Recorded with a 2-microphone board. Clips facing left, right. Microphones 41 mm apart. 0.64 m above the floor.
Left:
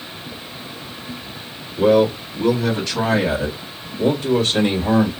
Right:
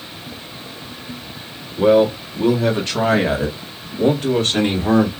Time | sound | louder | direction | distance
1.8 | a man speaking | right 1 dB | 20° right (ahead or behind) | 1.1 m